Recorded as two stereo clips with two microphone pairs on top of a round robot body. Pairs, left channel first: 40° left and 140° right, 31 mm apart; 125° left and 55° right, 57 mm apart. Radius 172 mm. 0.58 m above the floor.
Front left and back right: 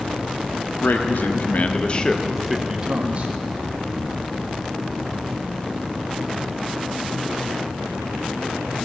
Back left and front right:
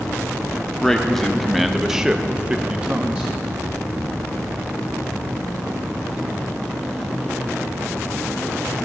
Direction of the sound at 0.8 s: 45° left.